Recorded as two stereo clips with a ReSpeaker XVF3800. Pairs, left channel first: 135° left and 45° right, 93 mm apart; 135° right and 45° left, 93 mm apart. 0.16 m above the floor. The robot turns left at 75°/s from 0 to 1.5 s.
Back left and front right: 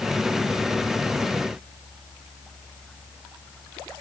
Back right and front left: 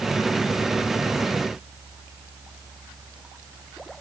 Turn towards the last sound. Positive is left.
No sound to turn to.